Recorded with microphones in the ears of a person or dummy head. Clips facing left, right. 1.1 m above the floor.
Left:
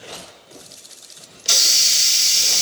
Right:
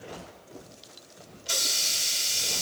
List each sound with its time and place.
1.4 s a hiss: 80° left, 1.4 m